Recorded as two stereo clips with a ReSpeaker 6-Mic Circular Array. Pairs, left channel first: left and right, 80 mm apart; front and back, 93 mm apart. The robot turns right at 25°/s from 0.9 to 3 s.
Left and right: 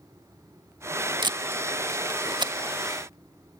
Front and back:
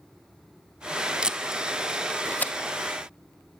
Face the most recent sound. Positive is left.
turn(degrees=-55)